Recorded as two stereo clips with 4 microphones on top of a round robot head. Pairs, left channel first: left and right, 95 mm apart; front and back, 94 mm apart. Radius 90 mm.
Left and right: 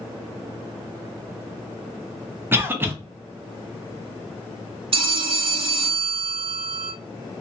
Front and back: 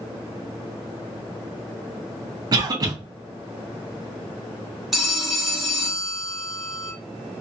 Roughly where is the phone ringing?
Right.